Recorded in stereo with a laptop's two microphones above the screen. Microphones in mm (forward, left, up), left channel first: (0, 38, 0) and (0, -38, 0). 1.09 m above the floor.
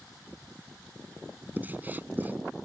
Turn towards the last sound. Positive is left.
turn(degrees=-25)  # may be behind; listen again after turning